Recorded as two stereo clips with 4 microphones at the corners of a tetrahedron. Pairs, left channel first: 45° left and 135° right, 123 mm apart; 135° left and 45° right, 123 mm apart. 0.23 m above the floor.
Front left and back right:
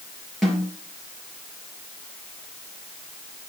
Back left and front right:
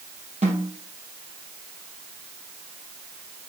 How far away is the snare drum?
About 5 m.